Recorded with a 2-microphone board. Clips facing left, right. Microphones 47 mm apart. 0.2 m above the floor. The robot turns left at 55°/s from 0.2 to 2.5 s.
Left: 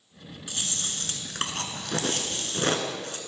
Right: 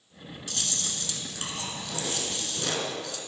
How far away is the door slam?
No door slam in this recording.